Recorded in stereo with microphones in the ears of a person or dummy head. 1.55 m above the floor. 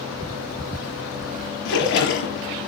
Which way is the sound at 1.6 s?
75° left (ahead or behind).